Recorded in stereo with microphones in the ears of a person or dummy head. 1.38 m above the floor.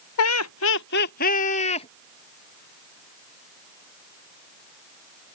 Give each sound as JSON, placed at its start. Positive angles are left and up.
{"t": 0.2, "sound": "laughter", "side_deg": 80}